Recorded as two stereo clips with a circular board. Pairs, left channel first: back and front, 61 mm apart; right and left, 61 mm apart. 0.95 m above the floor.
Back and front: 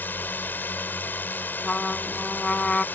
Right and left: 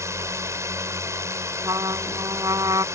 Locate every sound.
0.0 s a drone: 125° left
1.6 s a trumpet: 105° left